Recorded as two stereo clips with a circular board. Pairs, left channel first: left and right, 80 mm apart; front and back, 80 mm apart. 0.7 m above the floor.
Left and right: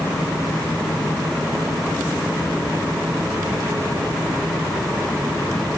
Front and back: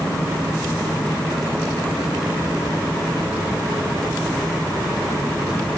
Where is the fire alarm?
No fire alarm in this recording.